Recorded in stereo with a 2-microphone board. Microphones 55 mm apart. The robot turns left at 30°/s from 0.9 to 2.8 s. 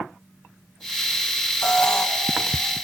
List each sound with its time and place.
1.6 s an alarm: 10° left (ahead or behind), 1.0 m; by 2.1 s 15° left (ahead or behind), 1.0 m